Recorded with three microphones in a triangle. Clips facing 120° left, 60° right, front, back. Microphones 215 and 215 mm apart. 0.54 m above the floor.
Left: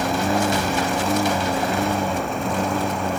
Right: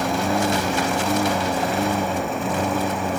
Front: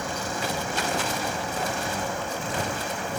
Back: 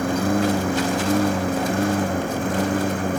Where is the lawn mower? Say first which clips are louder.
Left 1 dB, back 11 dB; 150° right.